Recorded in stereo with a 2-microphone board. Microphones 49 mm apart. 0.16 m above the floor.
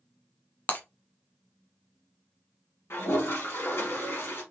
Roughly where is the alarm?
No alarm in this recording.